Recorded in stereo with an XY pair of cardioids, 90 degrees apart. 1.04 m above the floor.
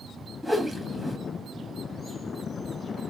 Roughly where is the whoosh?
Ahead.